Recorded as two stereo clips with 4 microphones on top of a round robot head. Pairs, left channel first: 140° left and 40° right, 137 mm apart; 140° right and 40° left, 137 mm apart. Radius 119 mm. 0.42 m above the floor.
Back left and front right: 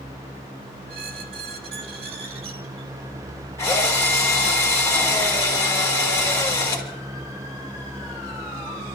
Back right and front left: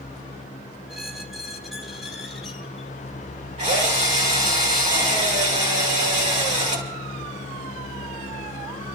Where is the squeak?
50° right, 1.6 m.